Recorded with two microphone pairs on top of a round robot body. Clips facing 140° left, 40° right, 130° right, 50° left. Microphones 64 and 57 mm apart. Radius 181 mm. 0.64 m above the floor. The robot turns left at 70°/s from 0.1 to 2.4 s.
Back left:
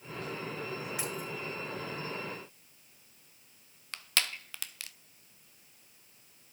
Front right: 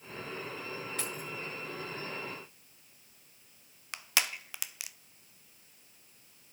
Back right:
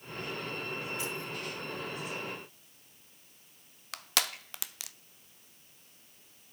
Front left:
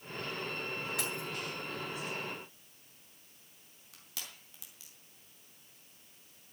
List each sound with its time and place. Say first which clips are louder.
1.0 s keys jangling: back left 2 dB, back right 1 dB; 60° left, 7.5 m; by 1.3 s 40° left, 7.5 m
3.9 s crushing: front right 1 dB, back right 16 dB; 120° right, 0.8 m